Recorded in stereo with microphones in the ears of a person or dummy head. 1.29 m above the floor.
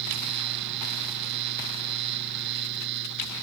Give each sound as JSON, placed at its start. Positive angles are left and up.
{"t": 0.0, "sound": "a fan", "side_deg": -70}